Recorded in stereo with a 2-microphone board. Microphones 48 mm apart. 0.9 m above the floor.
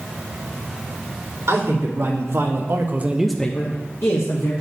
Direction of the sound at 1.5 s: 75° right (ahead or behind).